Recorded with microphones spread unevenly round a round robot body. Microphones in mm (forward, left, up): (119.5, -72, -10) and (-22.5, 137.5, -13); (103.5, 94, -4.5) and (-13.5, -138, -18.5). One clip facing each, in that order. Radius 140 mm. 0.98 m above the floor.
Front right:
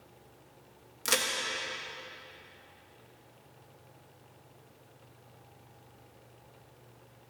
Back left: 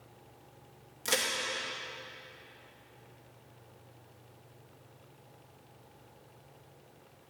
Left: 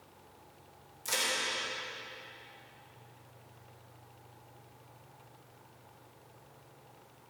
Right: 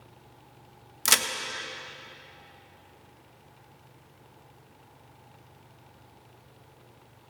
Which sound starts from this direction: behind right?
A crack, at 1.1 s.